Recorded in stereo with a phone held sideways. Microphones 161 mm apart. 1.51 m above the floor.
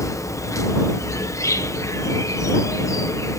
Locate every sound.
0.0 s an insect: 20° left (ahead or behind)